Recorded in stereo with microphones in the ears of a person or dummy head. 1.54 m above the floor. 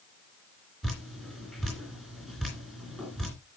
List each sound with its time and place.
0.8 s dripping: 5° left (ahead or behind), 3 m